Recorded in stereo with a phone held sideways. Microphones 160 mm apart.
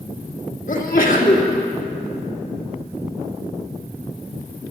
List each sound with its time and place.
0.7 s a sneeze: 55° left (ahead or behind), 2 m